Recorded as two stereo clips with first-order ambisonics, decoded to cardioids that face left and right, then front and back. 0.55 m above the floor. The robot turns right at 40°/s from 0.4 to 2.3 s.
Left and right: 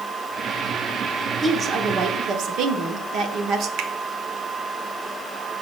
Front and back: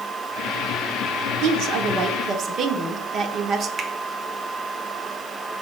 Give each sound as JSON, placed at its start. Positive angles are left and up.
{"t": 1.4, "sound": "a woman speaking", "azimuth_deg": -165, "distance_m": 1.0}
{"t": 3.8, "sound": "a finger snap", "azimuth_deg": -115, "distance_m": 0.9}